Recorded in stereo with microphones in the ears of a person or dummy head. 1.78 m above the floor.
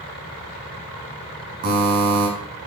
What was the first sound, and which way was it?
A buzzer, 50° right (ahead or behind).